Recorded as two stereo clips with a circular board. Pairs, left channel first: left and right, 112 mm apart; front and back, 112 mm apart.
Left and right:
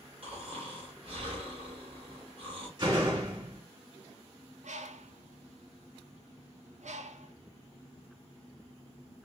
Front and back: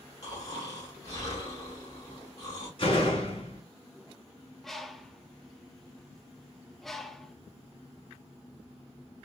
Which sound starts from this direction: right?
A bird, at 4.6 s.